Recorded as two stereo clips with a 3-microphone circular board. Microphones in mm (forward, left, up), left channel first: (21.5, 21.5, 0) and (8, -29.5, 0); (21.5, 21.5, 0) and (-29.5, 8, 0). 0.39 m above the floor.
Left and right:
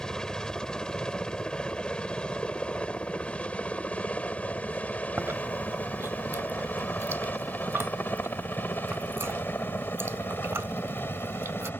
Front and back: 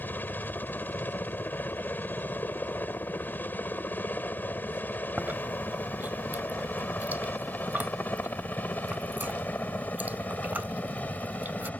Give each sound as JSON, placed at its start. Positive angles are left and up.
{"t": 0.0, "sound": "a helicopter", "azimuth_deg": 5}
{"t": 5.2, "sound": "chewing", "azimuth_deg": -120}